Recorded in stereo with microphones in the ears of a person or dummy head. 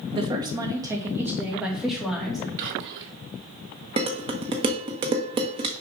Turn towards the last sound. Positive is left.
turn(degrees=-30)  # may be behind; listen again after turning